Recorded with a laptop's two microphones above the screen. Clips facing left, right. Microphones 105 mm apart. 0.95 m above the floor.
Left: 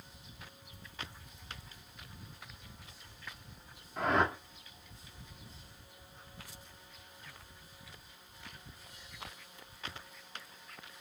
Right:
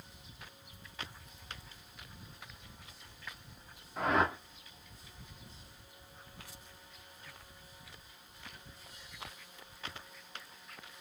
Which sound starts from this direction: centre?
A whoosh, at 4.0 s.